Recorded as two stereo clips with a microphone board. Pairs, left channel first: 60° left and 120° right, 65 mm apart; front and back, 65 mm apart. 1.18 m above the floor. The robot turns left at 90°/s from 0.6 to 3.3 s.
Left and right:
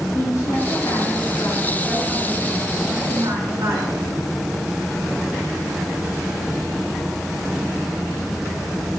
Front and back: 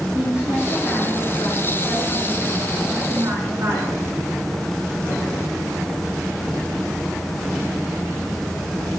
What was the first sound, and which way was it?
A woman speaking, 105° left.